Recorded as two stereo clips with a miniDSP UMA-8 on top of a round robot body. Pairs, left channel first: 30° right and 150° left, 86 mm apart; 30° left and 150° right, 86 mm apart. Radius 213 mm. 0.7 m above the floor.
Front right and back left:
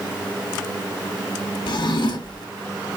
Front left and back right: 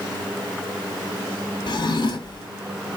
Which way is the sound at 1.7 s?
Straight ahead.